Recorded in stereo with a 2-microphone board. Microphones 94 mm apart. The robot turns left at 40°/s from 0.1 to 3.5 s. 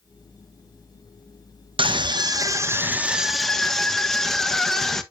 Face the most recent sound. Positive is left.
turn(degrees=175)